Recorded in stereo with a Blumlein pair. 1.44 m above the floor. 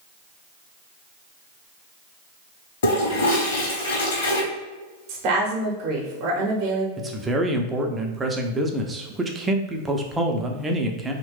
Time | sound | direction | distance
2.8 | a toilet flushing | 55° left | 1.0 m
5.1 | a woman speaking | 40° right | 0.8 m
7.0 | a man speaking | 15° right | 0.5 m